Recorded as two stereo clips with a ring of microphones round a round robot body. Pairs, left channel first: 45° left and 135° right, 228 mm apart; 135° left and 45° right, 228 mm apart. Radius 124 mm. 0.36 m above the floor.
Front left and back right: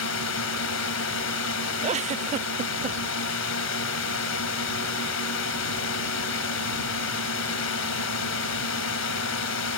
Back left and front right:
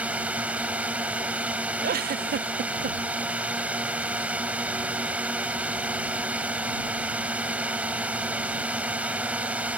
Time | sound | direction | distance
0.0 | a drone | 40° left | ?
1.8 | a giggle | 80° right | ?